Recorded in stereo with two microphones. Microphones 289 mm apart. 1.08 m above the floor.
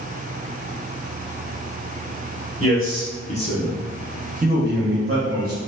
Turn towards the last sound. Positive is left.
turn(degrees=-55)  # may be behind; listen again after turning